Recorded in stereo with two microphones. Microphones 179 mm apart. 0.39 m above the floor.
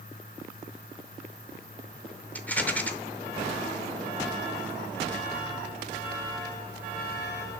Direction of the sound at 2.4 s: 10° left (ahead or behind).